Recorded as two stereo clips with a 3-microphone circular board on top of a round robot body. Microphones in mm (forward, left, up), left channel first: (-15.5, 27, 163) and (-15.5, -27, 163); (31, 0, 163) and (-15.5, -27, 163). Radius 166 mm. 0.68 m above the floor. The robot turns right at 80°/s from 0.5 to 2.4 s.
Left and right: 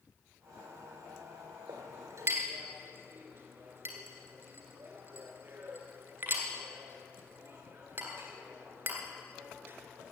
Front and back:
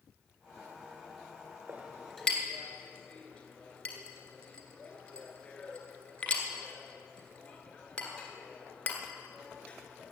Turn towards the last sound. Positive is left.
turn(degrees=-35)